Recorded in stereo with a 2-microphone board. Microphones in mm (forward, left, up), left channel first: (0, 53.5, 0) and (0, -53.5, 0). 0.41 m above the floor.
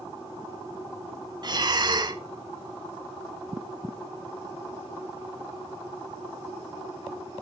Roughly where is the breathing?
Right.